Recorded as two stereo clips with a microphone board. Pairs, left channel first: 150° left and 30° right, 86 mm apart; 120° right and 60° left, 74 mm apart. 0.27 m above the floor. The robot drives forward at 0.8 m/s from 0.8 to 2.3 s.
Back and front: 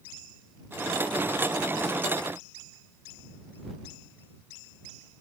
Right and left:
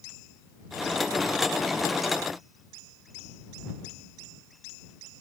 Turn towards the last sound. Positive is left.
No sound to turn to.